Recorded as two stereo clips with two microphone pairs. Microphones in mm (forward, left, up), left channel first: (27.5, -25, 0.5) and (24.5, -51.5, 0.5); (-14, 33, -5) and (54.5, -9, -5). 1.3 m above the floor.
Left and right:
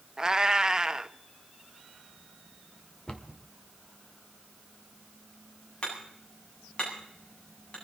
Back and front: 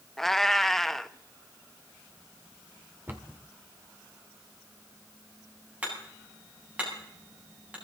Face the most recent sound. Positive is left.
turn(degrees=40)